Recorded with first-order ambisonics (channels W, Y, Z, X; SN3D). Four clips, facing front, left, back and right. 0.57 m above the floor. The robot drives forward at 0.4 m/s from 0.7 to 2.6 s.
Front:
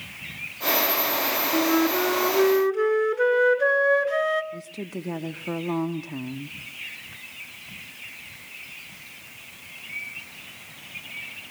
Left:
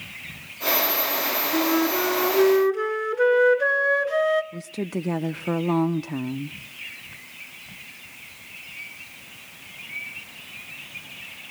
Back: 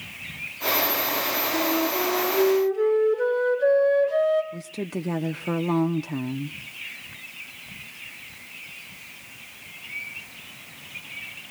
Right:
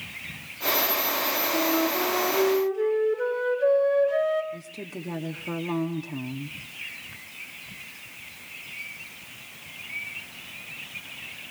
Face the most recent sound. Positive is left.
turn(degrees=120)